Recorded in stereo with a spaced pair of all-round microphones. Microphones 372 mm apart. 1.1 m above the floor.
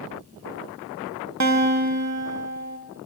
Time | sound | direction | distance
1.4 | a guitar | 45° right (ahead or behind) | 0.8 m